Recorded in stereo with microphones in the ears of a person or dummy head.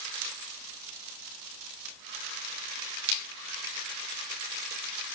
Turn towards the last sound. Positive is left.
No sound to turn to.